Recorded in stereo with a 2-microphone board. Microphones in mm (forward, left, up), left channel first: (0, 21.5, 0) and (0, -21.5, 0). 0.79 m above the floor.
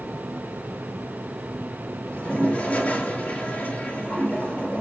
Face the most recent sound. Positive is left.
turn(degrees=30)  # may be behind; listen again after turning